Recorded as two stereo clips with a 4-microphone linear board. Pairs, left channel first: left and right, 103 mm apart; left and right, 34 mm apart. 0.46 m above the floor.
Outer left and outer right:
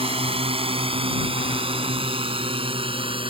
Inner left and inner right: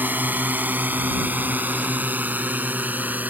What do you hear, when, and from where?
0.0 s a drone: 70° right (ahead or behind); by 3.3 s 60° right (ahead or behind)